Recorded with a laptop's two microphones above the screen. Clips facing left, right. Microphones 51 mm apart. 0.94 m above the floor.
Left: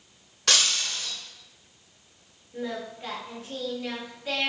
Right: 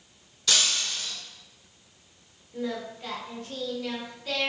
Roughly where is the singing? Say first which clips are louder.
Right 1 dB; centre.